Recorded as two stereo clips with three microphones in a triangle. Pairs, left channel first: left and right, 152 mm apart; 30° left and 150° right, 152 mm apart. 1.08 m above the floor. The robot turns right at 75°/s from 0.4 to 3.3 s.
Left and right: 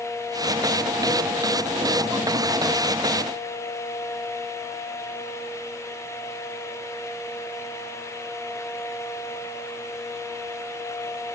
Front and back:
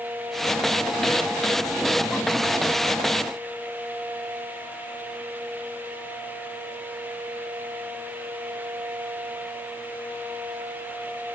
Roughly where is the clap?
I don't hear a clap.